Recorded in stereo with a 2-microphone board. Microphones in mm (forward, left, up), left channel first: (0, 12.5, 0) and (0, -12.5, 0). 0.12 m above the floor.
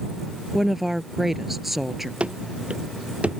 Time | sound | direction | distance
0.5 | a woman speaking | 10° right (ahead or behind) | ?
2.2 | running footsteps | 55° right (ahead or behind) | ?